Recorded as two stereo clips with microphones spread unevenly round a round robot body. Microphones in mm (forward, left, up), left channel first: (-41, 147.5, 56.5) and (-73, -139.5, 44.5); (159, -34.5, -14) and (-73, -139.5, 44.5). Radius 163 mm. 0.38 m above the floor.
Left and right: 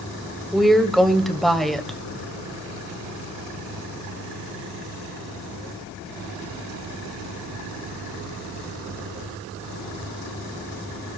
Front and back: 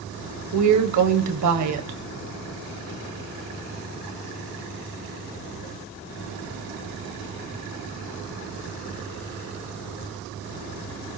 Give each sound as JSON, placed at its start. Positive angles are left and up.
{"t": 0.5, "sound": "a woman speaking", "azimuth_deg": 175, "distance_m": 1.6}